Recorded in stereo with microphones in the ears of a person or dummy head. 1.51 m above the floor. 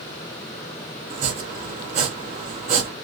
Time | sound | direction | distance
1.1 | chopping | 35° right (ahead or behind) | 0.6 m